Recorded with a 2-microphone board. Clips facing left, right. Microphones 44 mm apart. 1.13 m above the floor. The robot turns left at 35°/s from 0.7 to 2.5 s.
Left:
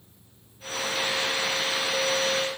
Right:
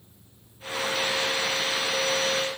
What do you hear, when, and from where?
Only background noise.